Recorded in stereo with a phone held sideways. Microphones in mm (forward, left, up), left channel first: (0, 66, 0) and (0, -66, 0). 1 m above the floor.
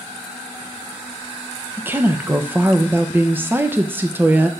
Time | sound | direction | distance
1.8 | a woman speaking | 15° right (ahead or behind) | 0.7 m